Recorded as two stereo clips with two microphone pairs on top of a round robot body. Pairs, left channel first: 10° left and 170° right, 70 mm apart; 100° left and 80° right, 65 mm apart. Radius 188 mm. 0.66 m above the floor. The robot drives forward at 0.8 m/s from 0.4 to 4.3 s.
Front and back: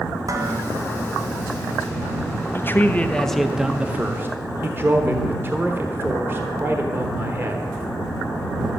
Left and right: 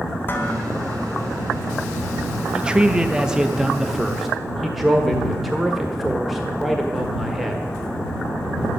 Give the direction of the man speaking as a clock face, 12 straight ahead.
1 o'clock.